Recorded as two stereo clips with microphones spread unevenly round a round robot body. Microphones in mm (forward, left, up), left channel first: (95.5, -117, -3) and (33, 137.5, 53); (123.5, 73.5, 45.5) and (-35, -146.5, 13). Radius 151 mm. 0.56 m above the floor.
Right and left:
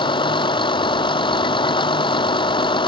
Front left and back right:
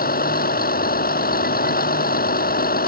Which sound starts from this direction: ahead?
A vehicle, at 0.0 s.